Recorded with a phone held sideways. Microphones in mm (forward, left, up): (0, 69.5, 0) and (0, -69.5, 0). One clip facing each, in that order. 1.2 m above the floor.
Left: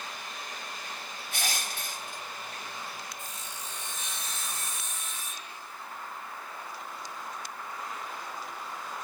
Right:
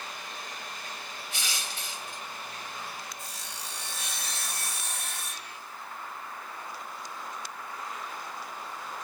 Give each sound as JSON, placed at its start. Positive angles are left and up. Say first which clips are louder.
{"t": 1.3, "sound": "crushing", "louder": "left 4 dB", "side_deg": 60}
{"t": 3.2, "sound": "sawing", "louder": "even", "side_deg": -75}